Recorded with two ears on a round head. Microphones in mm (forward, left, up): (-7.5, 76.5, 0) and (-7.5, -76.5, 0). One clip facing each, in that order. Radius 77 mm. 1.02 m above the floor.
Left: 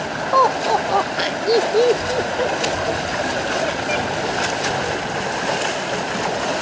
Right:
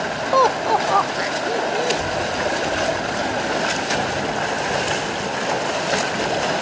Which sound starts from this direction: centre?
Laughter, at 0.3 s.